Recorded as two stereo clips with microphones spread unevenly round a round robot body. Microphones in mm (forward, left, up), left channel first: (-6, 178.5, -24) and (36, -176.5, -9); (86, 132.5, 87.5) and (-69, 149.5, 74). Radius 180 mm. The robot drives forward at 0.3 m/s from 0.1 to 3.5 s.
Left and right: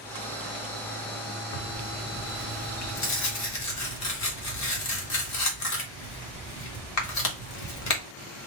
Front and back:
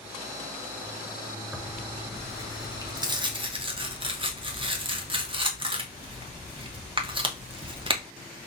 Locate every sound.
1.5 s tearing paper: 90° left, 1.1 m; by 8.0 s 125° left, 1.3 m